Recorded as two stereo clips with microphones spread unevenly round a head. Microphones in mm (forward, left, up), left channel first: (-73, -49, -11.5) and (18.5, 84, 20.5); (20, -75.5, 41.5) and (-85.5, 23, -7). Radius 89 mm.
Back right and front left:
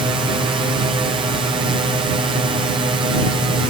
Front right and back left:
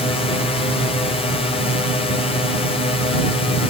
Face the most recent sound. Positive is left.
turn(degrees=5)